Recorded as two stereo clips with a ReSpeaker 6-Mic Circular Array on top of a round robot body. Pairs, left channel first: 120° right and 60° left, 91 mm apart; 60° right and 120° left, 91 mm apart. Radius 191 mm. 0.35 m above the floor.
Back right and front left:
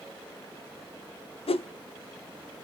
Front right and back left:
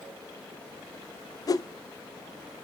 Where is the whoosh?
110° right, 0.6 m.